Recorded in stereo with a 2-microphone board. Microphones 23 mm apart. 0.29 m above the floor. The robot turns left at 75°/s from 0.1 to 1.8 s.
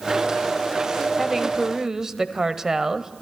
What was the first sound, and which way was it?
A woman speaking, 5° right (ahead or behind).